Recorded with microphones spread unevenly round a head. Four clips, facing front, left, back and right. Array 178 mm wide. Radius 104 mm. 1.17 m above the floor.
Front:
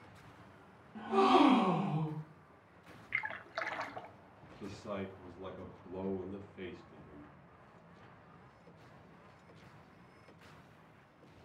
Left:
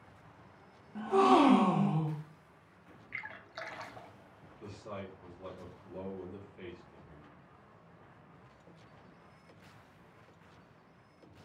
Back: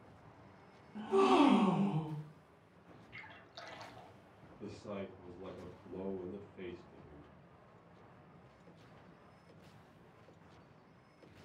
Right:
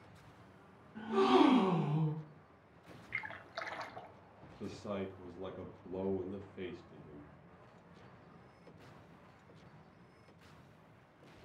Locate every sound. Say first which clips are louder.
0.9 s a gasp: left 4 dB, front 1 dB; 110° left, 0.8 m
3.1 s a splash: right 1 dB, front 15 dB; 5° left, 0.5 m
4.6 s a man speaking: right 3 dB, front 2 dB; 95° right, 1.3 m